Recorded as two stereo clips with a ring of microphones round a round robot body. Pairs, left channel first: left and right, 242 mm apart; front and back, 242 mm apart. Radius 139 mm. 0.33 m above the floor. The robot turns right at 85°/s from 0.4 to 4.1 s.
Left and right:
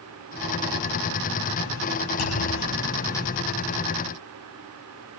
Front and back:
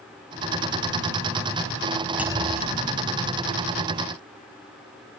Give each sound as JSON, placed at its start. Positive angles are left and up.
{"t": 2.2, "sound": "a clunk", "azimuth_deg": 95}